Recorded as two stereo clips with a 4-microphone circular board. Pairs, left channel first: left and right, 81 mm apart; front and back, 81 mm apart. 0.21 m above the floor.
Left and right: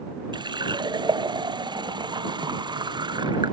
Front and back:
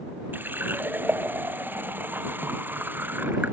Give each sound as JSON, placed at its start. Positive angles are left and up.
{"t": 0.3, "sound": "a running tap", "azimuth_deg": -115}